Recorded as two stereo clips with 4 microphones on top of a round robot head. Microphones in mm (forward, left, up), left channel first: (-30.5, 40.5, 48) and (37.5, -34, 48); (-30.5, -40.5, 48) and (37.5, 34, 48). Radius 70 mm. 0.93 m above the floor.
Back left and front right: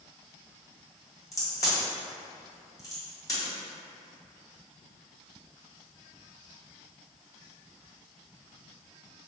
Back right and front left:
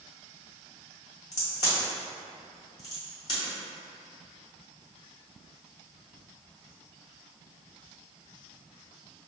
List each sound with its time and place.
1.3 s a crack: 175° right, 1.6 m